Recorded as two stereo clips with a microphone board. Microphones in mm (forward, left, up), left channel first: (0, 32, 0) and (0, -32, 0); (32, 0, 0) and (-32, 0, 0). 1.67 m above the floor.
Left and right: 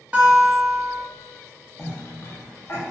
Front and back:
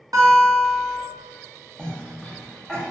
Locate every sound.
0.1 s a guitar: 160° right, 0.7 m
1.8 s a cough: 75° left, 0.6 m